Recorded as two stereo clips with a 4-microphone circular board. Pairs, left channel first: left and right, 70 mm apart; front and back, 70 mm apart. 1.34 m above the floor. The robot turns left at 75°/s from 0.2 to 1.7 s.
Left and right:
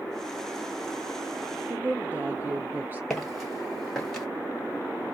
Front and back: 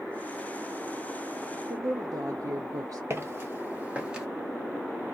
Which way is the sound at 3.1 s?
175° left.